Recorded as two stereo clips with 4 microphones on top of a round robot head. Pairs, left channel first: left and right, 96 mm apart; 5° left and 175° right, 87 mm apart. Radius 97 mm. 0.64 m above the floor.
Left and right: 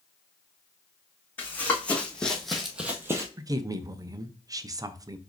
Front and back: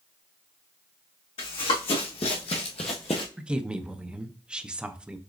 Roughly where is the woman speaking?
Right.